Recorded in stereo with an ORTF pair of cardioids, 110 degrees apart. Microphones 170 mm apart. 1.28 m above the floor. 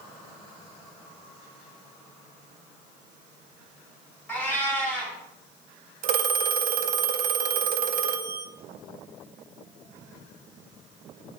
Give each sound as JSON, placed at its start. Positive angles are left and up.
{"t": 4.3, "sound": "a cat meowing", "azimuth_deg": 10, "distance_m": 1.7}
{"t": 6.0, "sound": "a phone ringing", "azimuth_deg": -60, "distance_m": 0.5}